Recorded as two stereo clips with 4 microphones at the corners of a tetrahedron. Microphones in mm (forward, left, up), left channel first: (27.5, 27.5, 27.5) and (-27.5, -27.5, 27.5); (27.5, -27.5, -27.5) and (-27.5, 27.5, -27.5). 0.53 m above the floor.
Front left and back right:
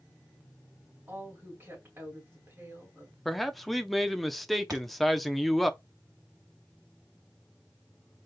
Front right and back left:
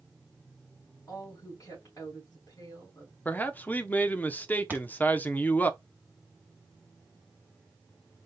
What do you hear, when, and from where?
1.1 s a woman speaking: 80° right, 3 m
3.2 s a man speaking: 45° right, 0.7 m
4.7 s a thud: 160° right, 1.1 m